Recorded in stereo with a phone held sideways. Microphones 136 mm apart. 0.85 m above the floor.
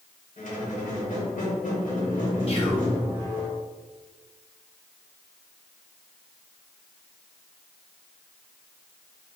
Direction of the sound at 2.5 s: 50° left (ahead or behind).